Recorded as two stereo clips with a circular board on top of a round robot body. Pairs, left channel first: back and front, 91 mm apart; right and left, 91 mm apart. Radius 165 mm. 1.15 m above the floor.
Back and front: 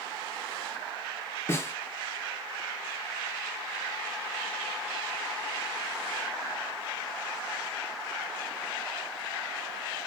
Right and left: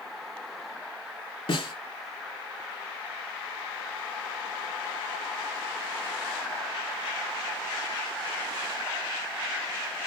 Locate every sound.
1.5 s a snare drum: 115° right, 5 m